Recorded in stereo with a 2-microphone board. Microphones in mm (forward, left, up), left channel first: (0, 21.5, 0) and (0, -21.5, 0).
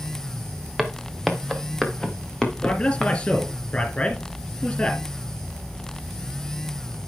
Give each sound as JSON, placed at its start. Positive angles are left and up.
{"t": 0.8, "sound": "footsteps", "side_deg": 5, "distance_m": 2.0}
{"t": 2.6, "sound": "a man speaking", "side_deg": 25, "distance_m": 3.5}